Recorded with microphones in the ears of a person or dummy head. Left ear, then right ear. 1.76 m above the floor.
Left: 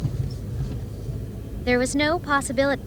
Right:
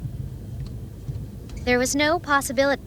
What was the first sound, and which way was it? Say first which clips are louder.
A woman speaking: right 1 dB; 15° right (ahead or behind).